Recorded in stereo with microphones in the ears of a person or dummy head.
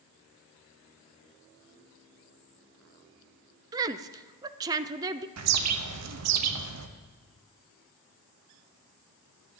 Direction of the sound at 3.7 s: 20° right (ahead or behind).